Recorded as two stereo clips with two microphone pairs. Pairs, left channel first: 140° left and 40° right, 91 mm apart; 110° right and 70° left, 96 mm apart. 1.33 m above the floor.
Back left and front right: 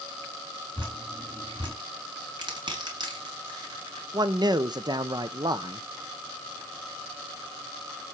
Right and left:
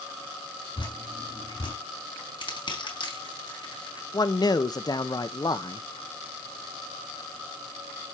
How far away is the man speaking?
About 0.9 m.